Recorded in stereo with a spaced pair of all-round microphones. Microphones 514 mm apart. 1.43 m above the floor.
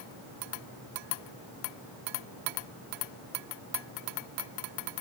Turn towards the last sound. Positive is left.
No sound to turn to.